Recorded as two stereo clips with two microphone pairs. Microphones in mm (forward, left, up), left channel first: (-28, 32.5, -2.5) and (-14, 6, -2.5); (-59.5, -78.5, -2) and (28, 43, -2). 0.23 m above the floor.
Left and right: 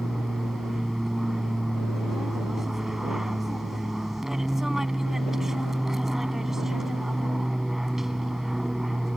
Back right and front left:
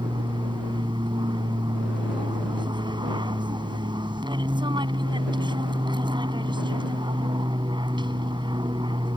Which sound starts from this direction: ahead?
An aircraft, at 0.0 s.